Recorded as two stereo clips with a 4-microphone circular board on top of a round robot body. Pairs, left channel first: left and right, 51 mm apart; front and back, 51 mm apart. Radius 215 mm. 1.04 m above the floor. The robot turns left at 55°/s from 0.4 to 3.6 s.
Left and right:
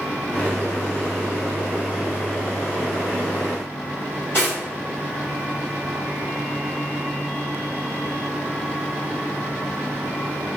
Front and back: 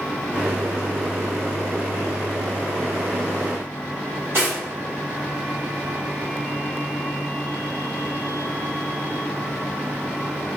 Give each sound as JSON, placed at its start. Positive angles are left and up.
{"t": 4.3, "sound": "cutlery clinking", "azimuth_deg": 135, "distance_m": 1.3}